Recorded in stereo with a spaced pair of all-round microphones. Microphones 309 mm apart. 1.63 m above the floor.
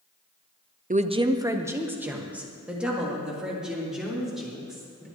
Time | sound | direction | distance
0.9 | a woman speaking | 25° right (ahead or behind) | 0.5 m